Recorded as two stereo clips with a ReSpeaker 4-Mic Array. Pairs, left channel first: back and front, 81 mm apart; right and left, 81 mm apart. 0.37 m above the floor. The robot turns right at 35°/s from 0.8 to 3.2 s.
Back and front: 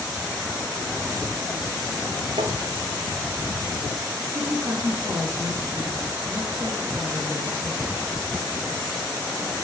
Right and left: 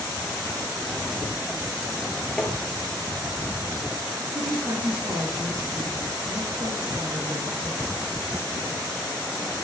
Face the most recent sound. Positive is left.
turn(degrees=50)